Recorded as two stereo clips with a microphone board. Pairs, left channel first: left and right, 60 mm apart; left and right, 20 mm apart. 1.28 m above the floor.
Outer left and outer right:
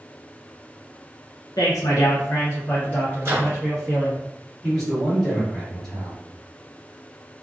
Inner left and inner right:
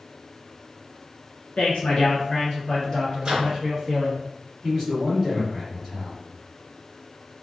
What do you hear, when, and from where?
1.6 s a man speaking: 85° left, 0.7 m; by 4.2 s 5° left (ahead or behind), 1.3 m
3.2 s a microwave: 45° right (ahead or behind), 1.3 m
4.6 s a man speaking: 10° left (ahead or behind), 1.7 m